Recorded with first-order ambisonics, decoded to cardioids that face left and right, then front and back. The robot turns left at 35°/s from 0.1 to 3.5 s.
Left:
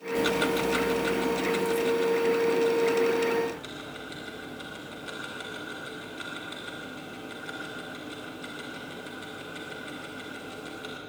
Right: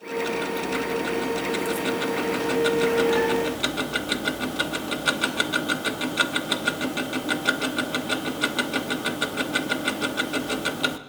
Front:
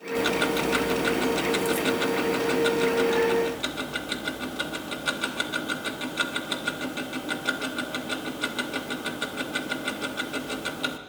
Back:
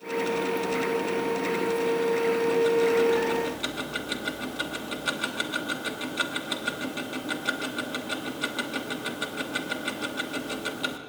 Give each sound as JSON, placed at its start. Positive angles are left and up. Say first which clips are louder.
{"t": 0.1, "sound": "ticking", "louder": "left 1 dB, front 3 dB", "azimuth_deg": 30, "distance_m": 1.0}